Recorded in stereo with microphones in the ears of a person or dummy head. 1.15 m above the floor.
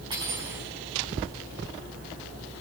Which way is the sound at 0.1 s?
25° right (ahead or behind).